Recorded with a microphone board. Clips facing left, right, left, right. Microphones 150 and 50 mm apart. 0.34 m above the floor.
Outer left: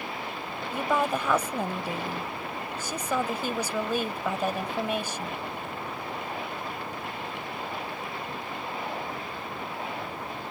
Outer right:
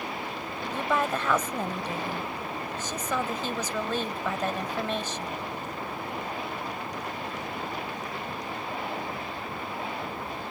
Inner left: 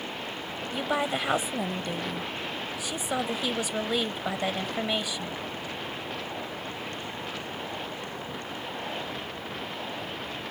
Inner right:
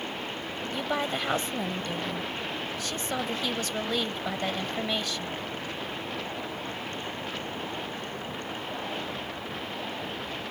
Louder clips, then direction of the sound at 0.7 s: Outer left 1 dB, inner left 2 dB; 10° left (ahead or behind).